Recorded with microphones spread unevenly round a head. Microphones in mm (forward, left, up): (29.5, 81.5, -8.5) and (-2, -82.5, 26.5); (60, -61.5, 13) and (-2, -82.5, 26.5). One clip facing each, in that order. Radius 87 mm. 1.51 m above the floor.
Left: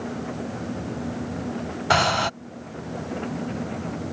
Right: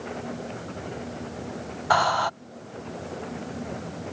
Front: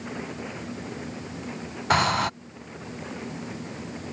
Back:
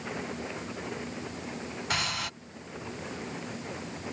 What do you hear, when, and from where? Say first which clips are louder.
1.9 s breathing: left 1 dB, front 12 dB; 25° left